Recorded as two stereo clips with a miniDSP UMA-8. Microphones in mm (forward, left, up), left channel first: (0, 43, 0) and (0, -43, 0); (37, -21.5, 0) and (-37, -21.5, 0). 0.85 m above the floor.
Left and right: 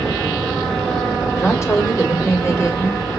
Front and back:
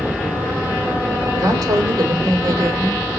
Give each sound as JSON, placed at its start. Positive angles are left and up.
{"t": 1.4, "sound": "a woman speaking", "azimuth_deg": 145, "distance_m": 3.0}